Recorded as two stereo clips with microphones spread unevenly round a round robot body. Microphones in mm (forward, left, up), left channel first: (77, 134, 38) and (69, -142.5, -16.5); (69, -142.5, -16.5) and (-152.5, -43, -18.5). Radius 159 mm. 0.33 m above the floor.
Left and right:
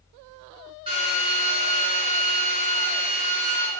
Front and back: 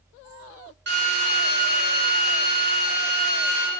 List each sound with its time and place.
0.9 s a drill: 160° right, 4.5 m